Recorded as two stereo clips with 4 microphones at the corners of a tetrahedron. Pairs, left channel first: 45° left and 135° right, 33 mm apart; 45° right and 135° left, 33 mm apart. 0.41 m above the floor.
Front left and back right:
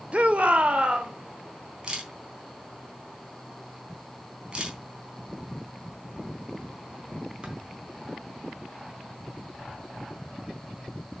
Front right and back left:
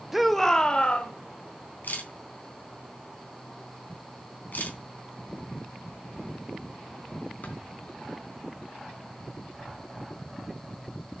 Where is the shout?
155° right, 1.3 m; by 1.1 s 85° right, 1.8 m.